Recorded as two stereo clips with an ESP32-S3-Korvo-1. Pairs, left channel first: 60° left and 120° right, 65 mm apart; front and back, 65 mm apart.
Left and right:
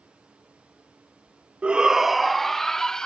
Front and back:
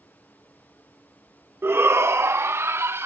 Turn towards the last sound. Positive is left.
turn(degrees=140)